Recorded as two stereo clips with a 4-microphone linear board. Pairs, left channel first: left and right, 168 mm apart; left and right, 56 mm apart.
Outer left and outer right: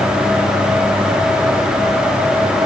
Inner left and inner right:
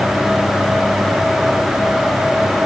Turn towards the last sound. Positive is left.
No sound to turn to.